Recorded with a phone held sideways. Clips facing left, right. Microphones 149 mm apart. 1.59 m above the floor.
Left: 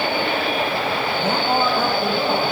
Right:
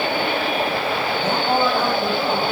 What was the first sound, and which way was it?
A man speaking, 10° left (ahead or behind).